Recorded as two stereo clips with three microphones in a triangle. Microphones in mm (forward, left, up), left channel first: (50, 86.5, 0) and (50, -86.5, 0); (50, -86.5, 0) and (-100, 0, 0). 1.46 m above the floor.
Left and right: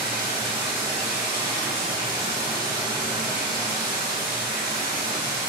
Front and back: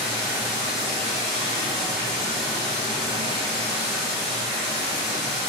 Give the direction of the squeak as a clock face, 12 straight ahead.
No squeak in this recording.